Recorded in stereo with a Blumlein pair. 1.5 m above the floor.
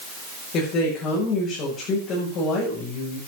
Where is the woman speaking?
35° left, 7 m.